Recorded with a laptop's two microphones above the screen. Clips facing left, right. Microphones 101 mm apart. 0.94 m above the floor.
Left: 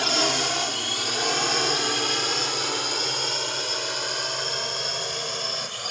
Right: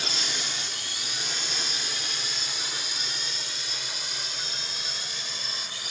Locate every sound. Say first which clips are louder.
0.0 s a drone: left 11 dB; 70° left (ahead or behind); by 5.9 s 55° left (ahead or behind)